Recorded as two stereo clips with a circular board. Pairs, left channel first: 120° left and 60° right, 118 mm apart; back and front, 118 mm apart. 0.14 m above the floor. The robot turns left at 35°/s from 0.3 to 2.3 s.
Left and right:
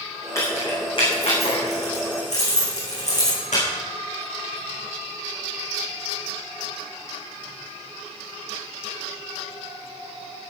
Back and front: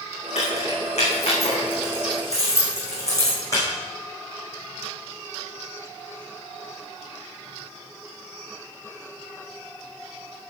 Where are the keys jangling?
175° right, 7 m; by 3.6 s 120° left, 7 m.